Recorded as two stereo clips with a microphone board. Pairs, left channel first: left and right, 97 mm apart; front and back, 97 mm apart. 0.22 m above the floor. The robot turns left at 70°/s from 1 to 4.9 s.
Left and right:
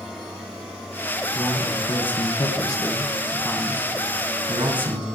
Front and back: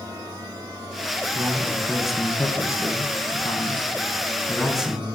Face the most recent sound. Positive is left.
turn(degrees=-105)